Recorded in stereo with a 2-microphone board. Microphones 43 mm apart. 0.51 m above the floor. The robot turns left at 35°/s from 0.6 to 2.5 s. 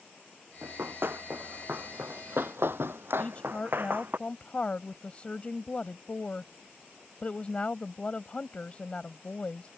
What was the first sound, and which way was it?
Running footsteps, 70° right (ahead or behind).